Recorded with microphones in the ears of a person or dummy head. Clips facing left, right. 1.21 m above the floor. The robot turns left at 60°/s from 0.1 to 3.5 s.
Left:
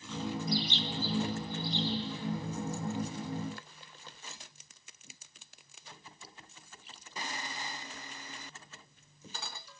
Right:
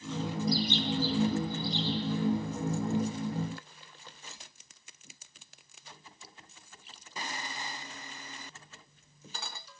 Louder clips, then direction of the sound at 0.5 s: Right 5 dB; 35° right.